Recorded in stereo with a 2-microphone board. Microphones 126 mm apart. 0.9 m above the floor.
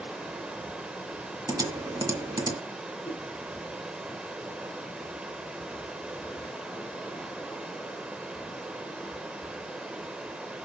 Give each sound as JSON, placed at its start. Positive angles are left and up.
{"t": 0.0, "sound": "running water", "side_deg": -5, "distance_m": 0.7}
{"t": 1.5, "sound": "typing on a keyboard", "side_deg": -30, "distance_m": 1.8}
{"t": 3.0, "sound": "a whoosh", "side_deg": 75, "distance_m": 4.0}